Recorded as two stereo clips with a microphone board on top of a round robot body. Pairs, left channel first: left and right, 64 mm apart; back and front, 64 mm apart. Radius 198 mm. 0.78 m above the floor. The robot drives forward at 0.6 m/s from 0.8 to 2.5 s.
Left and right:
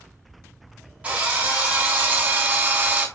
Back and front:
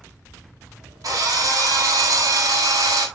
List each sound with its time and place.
1.0 s a drill: 20° right, 3.5 m; by 3.1 s 25° right, 2.5 m